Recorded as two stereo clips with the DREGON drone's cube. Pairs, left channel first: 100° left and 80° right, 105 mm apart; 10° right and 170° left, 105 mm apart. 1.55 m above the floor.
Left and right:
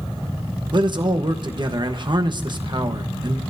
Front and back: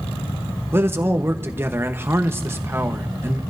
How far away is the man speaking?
About 1.2 m.